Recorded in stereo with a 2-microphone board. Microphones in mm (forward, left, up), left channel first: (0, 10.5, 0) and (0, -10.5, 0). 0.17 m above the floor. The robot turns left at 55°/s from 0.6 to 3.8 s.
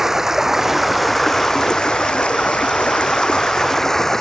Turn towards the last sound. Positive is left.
turn(degrees=20)